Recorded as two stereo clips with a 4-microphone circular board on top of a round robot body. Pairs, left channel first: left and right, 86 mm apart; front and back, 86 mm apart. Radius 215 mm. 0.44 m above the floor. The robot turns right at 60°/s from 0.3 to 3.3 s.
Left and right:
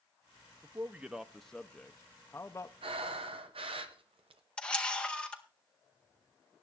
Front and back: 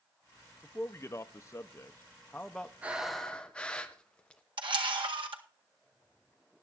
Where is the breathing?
110° right, 0.7 m; by 4.4 s 80° right, 0.7 m.